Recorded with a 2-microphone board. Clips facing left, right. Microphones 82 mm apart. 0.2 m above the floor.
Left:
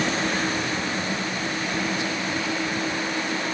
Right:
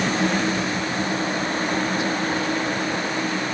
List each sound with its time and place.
Only background noise.